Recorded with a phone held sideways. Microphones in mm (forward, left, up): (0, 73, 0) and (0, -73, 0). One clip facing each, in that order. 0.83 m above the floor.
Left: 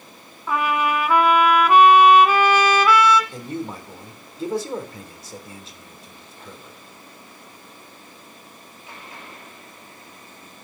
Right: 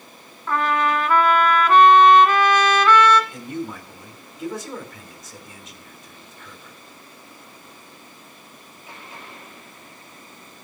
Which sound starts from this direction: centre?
A trumpet, at 0.5 s.